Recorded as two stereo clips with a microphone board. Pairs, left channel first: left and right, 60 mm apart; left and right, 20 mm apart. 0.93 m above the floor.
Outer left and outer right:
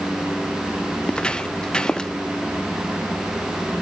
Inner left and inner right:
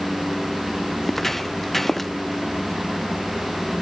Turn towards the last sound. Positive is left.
turn(degrees=10)  # may be behind; listen again after turning